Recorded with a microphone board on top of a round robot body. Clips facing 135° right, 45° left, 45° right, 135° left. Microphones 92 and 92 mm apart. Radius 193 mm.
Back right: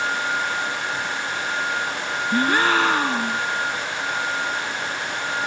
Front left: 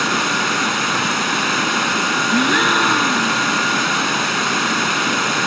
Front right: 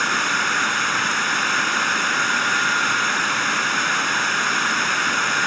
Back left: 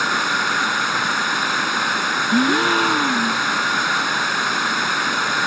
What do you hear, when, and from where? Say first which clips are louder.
0.0 s running water: front left 5 dB, back left 1 dB; 55° left
2.3 s a gasp: front left 1 dB, back left 4 dB; 125° left